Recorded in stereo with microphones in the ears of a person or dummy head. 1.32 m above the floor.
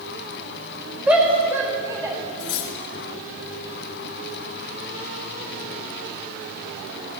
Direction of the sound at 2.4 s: 75° left (ahead or behind).